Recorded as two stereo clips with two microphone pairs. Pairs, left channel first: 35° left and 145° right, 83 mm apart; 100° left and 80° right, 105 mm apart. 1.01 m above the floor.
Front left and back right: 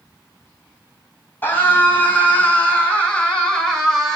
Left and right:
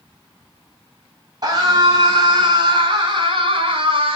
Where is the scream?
30° right, 5.5 m; by 4.2 s 55° right, 3.5 m.